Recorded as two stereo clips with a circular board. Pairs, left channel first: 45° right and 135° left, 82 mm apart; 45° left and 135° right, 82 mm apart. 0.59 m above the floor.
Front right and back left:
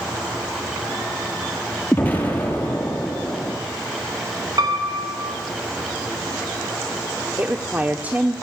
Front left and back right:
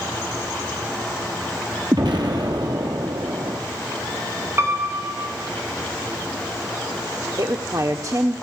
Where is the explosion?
110° right, 5.5 m.